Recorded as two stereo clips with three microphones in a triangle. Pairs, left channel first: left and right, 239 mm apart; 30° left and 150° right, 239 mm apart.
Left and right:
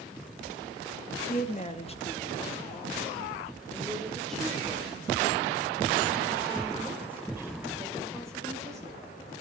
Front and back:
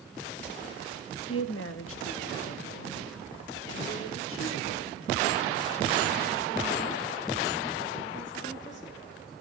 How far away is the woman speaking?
About 1.6 m.